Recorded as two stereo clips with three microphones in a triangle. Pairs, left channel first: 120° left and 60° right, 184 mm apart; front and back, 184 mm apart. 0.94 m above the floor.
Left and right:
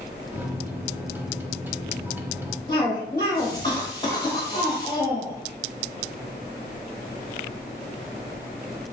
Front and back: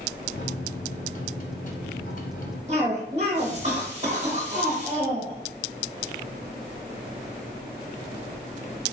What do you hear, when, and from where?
0.3 s a microwave: 20° left, 0.7 m
2.7 s a cough: 175° left, 1.0 m